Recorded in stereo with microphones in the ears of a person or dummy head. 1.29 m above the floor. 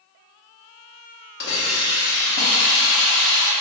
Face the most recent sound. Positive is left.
turn(degrees=50)  # may be behind; listen again after turning